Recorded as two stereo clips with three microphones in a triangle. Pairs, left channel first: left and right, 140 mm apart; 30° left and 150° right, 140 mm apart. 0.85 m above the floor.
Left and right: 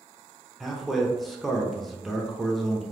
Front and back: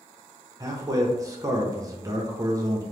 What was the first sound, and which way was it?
A man speaking, straight behind.